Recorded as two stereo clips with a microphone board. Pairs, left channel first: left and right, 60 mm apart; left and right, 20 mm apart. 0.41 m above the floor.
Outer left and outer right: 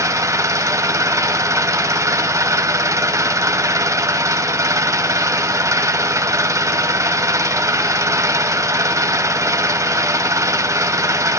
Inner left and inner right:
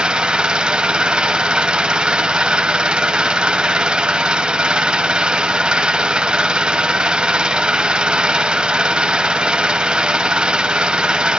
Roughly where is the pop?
No pop in this recording.